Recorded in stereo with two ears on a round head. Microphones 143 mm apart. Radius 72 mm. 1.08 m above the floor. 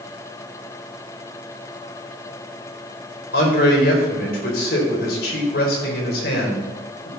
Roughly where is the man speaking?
Left.